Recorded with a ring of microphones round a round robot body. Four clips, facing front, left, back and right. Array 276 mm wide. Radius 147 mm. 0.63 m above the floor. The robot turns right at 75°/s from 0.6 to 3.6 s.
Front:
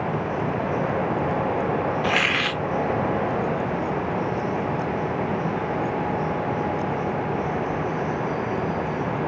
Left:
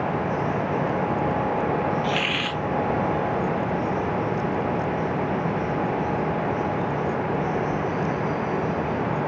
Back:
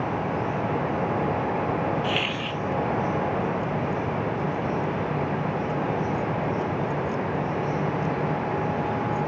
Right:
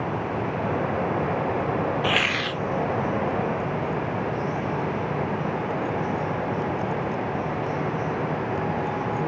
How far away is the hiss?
About 0.5 m.